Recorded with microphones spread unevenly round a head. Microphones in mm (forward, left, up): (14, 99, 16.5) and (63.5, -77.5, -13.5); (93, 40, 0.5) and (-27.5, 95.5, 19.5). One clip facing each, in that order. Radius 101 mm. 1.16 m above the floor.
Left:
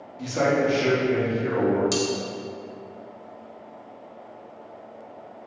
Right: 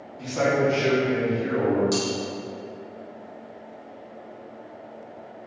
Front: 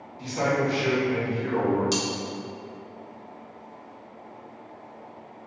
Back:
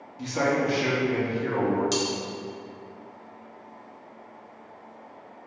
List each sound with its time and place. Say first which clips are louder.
0.2 s a man speaking: even, even; 175° right, 0.8 m; by 1.8 s 100° left, 1.1 m
1.9 s cutlery clinking: even, back 1 dB; 70° left, 0.7 m